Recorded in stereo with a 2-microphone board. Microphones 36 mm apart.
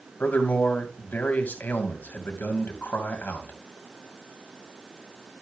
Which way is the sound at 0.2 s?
50° left (ahead or behind).